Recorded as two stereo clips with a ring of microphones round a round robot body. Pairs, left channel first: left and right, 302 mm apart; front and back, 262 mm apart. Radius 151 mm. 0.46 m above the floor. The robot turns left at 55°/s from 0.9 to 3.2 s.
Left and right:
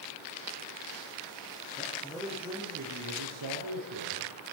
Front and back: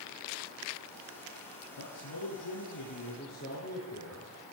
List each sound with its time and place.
1.8 s a man speaking: 25° left, 9 m; by 4.5 s 55° right, 9 m